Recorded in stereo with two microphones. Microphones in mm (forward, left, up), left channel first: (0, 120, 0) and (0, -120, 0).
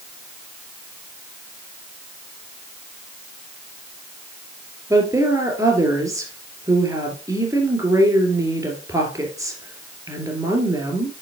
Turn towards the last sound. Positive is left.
turn(degrees=-15)  # may be behind; listen again after turning